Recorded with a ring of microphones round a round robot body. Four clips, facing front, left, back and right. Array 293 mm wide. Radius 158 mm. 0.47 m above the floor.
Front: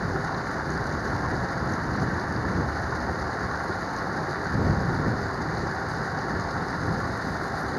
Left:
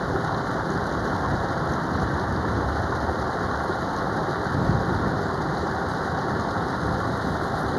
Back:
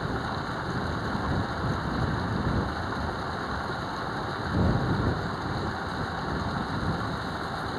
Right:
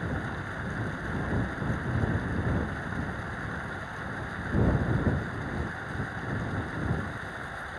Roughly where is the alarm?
No alarm in this recording.